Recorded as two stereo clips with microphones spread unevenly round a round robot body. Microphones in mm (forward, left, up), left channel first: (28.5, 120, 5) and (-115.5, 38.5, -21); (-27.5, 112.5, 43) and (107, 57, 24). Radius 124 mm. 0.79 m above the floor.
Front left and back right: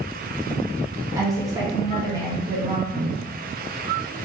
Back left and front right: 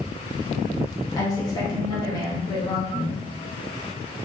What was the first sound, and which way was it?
A woman speaking, 150° right.